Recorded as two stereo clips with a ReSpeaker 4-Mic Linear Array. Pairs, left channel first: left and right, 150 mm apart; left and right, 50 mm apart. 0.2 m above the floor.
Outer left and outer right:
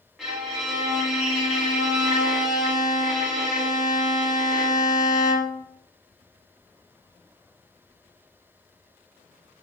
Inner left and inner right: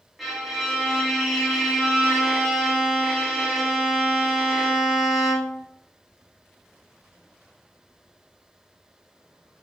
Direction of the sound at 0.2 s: 5° right (ahead or behind).